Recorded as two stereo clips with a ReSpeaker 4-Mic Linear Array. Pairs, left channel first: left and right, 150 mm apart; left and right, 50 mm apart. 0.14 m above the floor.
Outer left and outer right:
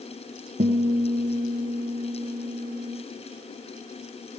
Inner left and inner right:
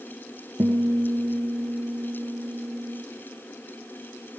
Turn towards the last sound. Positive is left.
turn(degrees=-60)  # may be behind; listen again after turning